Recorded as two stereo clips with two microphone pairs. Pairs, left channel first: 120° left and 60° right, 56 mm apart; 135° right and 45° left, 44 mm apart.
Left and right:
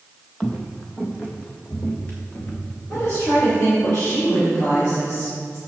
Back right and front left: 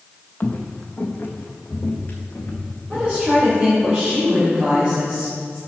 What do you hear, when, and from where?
0.4 s footsteps: 175° right, 0.9 m; by 3.9 s straight behind, 3 m
2.9 s a woman speaking: 105° left, 3 m